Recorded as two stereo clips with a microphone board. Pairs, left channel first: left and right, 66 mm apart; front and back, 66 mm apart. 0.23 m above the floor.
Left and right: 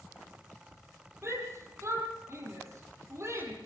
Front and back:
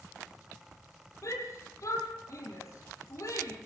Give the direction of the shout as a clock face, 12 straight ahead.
1 o'clock.